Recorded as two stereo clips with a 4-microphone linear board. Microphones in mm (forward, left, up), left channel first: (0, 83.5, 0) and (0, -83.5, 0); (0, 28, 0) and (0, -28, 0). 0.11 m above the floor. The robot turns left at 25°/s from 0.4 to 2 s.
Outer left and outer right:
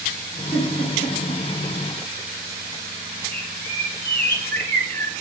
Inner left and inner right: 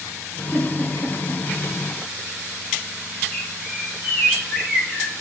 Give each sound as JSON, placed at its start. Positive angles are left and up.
{"t": 0.5, "sound": "a giggle", "side_deg": 10, "distance_m": 5.5}
{"t": 3.3, "sound": "a bird", "side_deg": 10, "distance_m": 1.1}